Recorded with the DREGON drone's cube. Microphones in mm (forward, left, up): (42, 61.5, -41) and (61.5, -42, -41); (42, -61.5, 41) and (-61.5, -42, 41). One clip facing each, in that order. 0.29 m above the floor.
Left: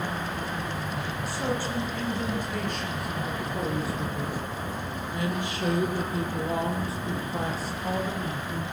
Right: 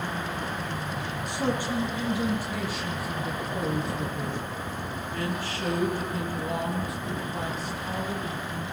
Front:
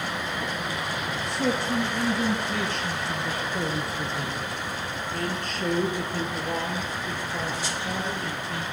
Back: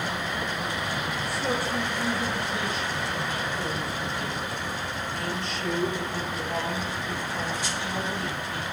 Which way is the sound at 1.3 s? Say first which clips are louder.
Right 2 dB, front 4 dB; 5° right.